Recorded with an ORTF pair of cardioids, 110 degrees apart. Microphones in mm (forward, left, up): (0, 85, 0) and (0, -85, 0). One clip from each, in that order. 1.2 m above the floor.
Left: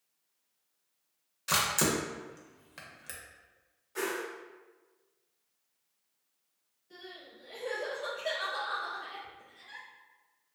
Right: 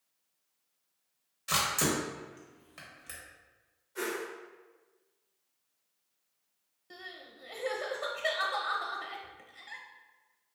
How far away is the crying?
About 0.8 m.